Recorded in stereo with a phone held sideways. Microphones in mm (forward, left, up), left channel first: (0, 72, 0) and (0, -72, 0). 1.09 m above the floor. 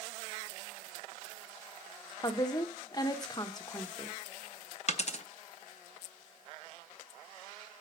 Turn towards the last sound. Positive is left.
turn(degrees=50)  # may be behind; listen again after turning